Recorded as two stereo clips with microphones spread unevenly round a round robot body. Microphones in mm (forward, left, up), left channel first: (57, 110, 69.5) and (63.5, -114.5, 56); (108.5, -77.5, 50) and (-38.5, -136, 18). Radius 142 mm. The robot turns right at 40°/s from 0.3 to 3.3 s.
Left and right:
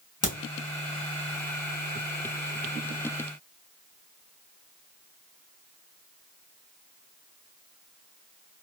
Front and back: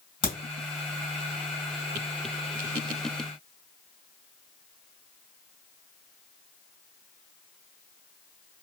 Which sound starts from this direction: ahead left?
A crack, at 0.2 s.